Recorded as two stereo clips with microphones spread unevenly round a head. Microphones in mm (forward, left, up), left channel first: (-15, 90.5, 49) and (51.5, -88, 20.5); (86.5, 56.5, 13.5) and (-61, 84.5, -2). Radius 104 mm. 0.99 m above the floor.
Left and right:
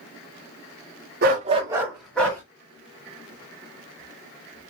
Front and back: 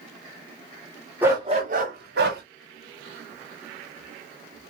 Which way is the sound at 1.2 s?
110° right.